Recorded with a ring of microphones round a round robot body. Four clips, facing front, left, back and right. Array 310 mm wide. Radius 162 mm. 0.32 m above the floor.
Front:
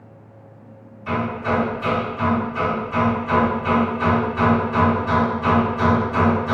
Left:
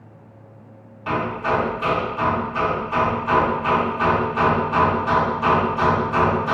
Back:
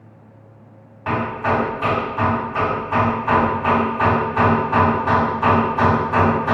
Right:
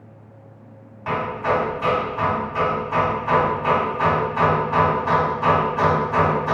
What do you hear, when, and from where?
1.1 s hammering: 165° right, 1.5 m